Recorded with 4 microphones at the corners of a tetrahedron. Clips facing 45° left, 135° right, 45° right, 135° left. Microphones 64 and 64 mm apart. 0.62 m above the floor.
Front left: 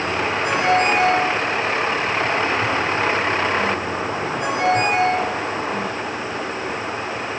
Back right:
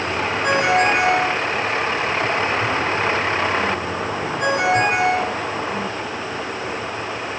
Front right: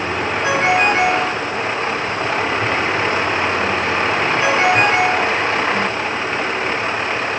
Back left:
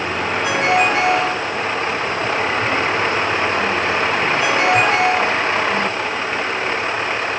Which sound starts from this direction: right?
A ringtone, at 0.4 s.